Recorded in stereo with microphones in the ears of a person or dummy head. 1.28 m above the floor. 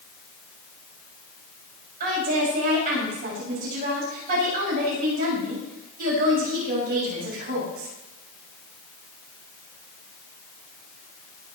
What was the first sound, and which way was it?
A woman speaking, 40° right (ahead or behind).